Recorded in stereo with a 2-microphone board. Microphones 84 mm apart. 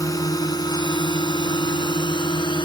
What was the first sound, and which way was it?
A drone, 45° left (ahead or behind).